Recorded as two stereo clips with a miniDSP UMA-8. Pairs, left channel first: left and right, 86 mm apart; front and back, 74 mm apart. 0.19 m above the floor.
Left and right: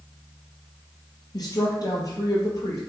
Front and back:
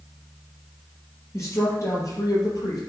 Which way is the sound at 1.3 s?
50° left.